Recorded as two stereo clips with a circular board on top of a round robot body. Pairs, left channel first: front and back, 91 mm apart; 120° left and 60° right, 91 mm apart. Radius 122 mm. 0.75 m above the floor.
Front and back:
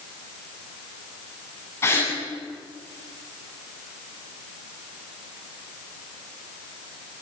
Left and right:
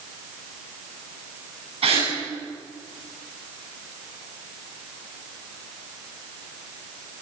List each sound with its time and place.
1.8 s a gasp: 65° right, 8.5 m